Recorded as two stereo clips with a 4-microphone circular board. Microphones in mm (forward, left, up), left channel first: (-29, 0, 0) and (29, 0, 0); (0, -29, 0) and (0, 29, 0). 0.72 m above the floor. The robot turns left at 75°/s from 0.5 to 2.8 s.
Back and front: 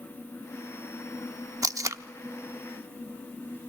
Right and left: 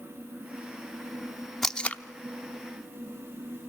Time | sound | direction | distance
1.6 | tape being pulled | 5° right | 0.6 m